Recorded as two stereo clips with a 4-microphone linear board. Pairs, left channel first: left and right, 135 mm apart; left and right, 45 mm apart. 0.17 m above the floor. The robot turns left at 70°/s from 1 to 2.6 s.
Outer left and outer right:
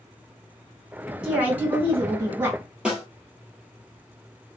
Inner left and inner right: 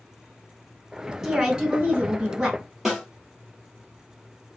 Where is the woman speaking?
5° right (ahead or behind), 1.5 m; by 2.6 s 15° right (ahead or behind), 1.5 m.